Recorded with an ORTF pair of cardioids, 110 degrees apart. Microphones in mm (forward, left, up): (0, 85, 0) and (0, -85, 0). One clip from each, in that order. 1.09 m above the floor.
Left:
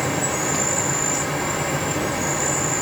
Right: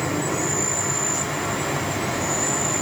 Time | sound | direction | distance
0.0 | an insect | 55° left | 1.5 m